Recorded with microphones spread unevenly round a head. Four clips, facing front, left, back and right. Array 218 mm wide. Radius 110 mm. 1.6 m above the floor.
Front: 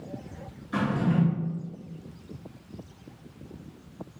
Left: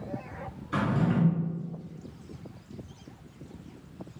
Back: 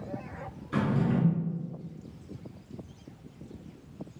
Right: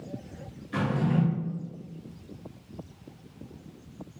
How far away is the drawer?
About 1.5 m.